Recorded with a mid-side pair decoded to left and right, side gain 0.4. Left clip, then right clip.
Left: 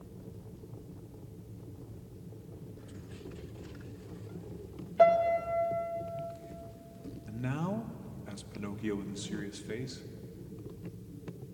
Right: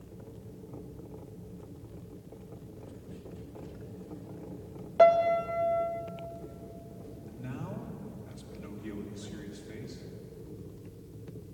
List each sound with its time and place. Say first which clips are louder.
5.0 s a piano: right 2 dB; 45° right, 0.7 m
7.3 s a man speaking: left 7 dB; 70° left, 0.8 m